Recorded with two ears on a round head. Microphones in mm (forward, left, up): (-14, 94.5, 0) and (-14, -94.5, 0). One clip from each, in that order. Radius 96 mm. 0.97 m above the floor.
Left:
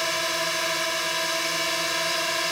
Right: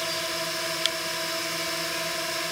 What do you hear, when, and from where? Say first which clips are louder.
0.0 s a drone: left 4 dB; 50° left (ahead or behind)